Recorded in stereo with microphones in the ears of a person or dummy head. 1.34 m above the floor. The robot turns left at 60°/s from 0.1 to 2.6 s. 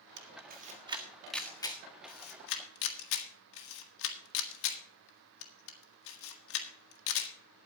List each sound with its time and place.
0.2 s a camera shutter: 60° right (ahead or behind), 1.6 m; by 7.3 s 75° left (ahead or behind), 1.6 m